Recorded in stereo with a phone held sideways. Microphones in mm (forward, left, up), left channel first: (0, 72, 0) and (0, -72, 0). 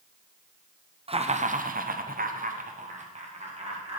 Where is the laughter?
40° right (ahead or behind), 0.7 m; by 4.0 s 45° right (ahead or behind), 1.7 m.